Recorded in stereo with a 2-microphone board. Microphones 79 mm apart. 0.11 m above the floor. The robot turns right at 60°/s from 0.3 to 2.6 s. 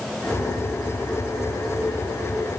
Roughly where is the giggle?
No giggle in this recording.